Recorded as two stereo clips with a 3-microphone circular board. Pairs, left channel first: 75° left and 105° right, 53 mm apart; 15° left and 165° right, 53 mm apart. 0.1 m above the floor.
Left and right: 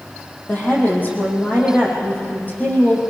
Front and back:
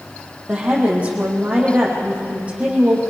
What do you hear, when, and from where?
0.5 s a woman speaking: 130° left, 5 m